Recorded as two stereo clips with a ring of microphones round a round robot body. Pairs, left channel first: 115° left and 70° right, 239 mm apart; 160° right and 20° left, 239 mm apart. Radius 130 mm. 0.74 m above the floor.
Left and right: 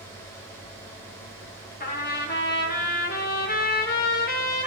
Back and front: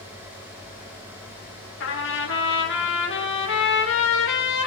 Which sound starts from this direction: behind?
A trumpet, at 1.8 s.